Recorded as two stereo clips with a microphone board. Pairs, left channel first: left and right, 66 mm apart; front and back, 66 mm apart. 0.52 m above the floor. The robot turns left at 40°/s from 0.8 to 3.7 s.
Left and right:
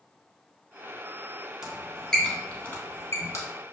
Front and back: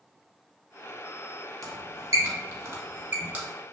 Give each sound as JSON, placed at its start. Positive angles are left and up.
{"t": 1.6, "sound": "a squeak", "azimuth_deg": -170, "distance_m": 0.7}